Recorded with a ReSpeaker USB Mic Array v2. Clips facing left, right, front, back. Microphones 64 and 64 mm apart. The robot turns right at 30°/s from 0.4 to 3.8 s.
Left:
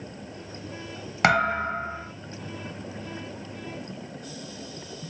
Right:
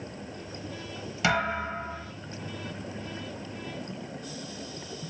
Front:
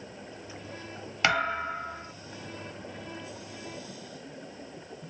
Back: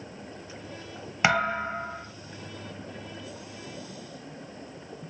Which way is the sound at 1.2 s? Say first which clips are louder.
Left 5 dB, back 2 dB; 110° left.